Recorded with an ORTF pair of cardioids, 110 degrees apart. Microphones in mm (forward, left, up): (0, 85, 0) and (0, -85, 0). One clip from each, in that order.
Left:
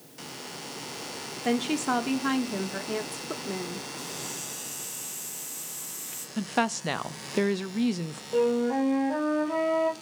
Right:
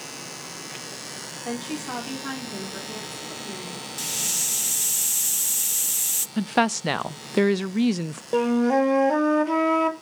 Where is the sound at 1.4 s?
40° left, 3 m.